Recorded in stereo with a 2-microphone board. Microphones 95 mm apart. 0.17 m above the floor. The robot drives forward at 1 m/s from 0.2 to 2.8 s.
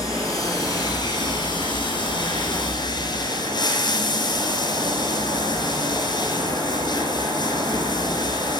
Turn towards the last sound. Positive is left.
turn(degrees=50)  # may be behind; listen again after turning